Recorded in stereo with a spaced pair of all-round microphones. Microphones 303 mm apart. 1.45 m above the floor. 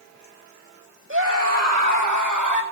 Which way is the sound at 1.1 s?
40° right (ahead or behind).